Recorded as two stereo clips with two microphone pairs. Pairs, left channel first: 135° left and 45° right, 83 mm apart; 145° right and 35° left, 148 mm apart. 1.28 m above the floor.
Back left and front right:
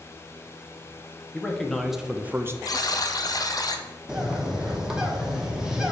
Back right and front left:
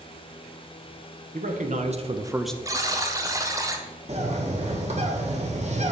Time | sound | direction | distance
1.3 | a man speaking | 55° left | 1.1 m
2.6 | a buzzer | 100° left | 0.7 m
4.1 | a bird | 35° left | 1.0 m